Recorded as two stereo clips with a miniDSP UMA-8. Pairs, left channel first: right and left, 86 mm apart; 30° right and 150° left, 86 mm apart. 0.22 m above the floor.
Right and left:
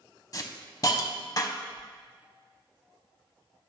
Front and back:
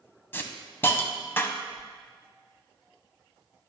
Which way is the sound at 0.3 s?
85° right.